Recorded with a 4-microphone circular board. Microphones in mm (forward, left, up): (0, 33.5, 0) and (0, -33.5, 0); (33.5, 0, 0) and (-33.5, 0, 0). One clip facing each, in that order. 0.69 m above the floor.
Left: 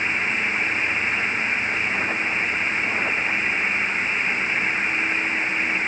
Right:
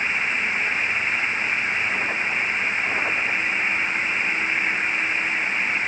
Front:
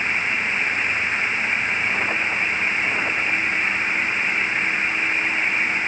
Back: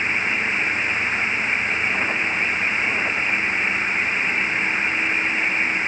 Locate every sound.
Only background noise.